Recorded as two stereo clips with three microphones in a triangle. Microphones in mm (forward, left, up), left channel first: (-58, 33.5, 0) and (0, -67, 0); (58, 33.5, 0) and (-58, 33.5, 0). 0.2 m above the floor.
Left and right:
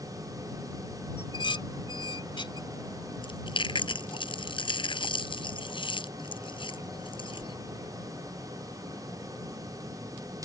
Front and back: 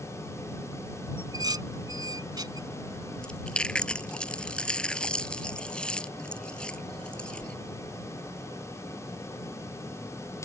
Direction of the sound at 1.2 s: 140° left.